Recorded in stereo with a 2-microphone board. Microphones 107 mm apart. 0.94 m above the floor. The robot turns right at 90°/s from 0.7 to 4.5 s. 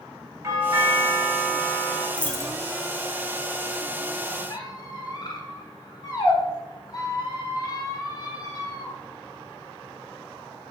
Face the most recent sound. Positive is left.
turn(degrees=40)  # may be behind; listen again after turning